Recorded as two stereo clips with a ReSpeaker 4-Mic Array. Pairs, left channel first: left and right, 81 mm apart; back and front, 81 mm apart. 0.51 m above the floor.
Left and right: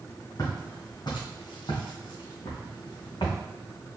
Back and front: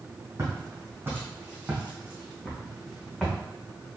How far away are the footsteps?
About 1.9 m.